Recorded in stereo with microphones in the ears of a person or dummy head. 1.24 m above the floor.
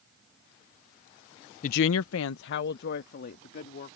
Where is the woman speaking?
40° left (ahead or behind); by 4.0 s 50° left (ahead or behind).